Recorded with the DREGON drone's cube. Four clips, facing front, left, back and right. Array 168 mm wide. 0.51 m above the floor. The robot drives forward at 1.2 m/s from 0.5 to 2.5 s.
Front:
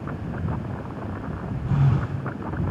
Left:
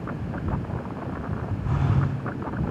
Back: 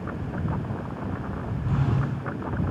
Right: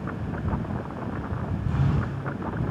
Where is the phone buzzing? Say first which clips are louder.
Left 2 dB, front 3 dB; 70° left, 1.7 m; by 2.2 s 95° left, 1.6 m.